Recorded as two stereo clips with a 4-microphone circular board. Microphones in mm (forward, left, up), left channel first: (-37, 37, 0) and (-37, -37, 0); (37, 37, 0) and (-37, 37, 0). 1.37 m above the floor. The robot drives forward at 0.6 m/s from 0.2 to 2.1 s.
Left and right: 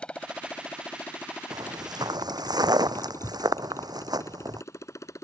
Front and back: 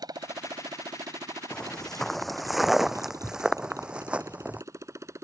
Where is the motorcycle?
165° left; by 5.2 s 135° left.